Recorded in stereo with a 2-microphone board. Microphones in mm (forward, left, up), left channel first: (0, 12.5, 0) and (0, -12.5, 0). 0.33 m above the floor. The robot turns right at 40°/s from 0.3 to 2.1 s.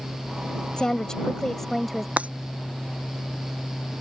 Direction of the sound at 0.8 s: 125° left.